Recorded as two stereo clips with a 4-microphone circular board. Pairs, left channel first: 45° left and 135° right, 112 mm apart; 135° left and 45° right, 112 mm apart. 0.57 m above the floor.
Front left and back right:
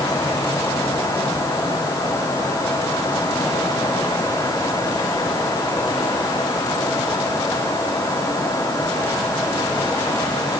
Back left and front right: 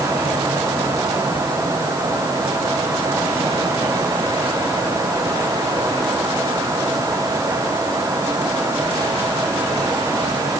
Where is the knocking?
No knocking in this recording.